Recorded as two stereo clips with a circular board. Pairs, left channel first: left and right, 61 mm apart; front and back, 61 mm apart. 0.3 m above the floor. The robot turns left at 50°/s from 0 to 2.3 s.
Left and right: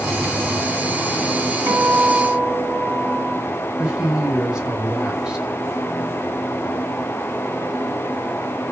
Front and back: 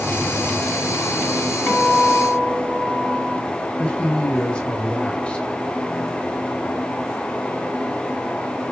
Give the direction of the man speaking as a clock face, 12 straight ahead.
1 o'clock.